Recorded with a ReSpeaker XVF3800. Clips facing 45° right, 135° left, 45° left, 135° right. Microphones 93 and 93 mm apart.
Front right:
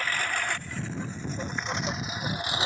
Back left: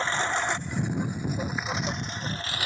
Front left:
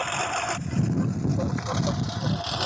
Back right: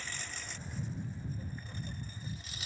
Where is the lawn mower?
70° left; by 2.7 s 20° left.